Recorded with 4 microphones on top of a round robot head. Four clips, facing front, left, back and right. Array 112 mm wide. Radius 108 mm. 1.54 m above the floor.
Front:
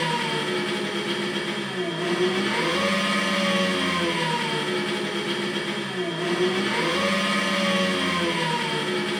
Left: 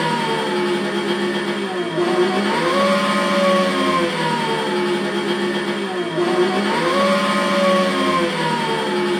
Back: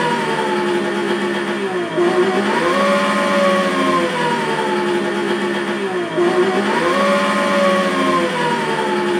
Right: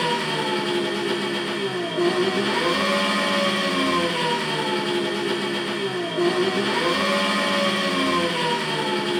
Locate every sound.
0.0 s an engine running: 155° left, 2.5 m